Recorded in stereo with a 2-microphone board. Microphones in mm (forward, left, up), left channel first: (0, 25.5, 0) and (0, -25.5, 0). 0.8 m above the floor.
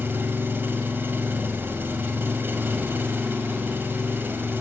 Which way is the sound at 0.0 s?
50° right (ahead or behind).